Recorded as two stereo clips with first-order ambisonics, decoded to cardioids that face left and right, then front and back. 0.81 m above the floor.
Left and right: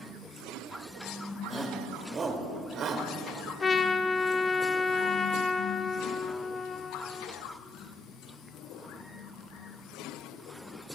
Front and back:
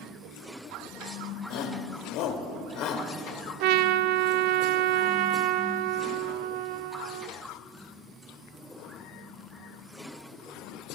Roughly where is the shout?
Ahead.